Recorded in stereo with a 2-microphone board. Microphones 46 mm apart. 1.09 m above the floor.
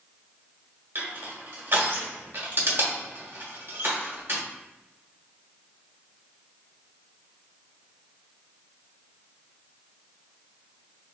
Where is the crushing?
60° right (ahead or behind), 1.5 m.